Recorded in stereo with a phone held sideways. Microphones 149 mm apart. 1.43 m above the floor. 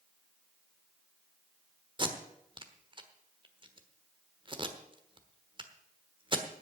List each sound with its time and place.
2.0 s tape being pulled: 35° right (ahead or behind), 1.3 m